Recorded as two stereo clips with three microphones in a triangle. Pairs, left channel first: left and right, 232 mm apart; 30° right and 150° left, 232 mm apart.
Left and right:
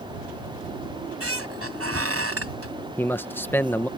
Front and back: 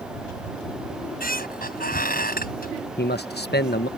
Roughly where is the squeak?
Right.